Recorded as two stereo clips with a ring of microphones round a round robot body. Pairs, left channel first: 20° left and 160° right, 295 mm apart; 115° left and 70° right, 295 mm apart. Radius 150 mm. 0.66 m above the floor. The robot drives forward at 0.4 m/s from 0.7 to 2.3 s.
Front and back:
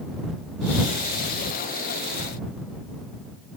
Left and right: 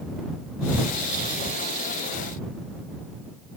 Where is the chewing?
I don't hear chewing.